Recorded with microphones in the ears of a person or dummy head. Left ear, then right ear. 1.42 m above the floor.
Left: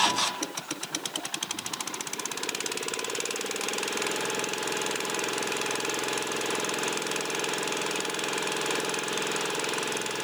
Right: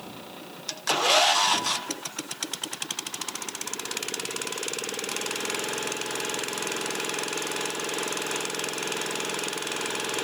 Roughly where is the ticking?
I don't hear ticking.